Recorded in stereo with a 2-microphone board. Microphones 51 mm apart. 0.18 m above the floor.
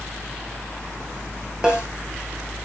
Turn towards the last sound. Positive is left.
turn(degrees=-15)  # may be behind; listen again after turning